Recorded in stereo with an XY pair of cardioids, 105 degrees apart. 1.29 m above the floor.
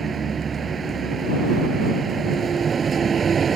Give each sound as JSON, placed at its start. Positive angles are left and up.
{"t": 0.0, "sound": "a vehicle", "azimuth_deg": -40}